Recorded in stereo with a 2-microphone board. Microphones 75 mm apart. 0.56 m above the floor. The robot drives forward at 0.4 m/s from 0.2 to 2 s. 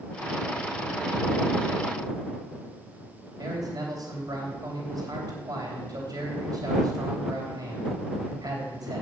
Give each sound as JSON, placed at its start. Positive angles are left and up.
{"t": 3.4, "sound": "a man speaking", "side_deg": -60, "distance_m": 3.0}